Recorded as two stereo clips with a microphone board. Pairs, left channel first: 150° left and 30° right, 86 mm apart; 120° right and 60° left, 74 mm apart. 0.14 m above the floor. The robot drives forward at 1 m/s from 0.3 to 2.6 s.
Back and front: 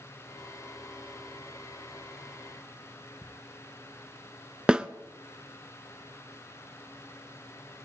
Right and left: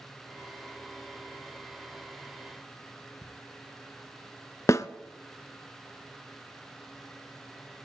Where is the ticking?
165° right, 1.7 m.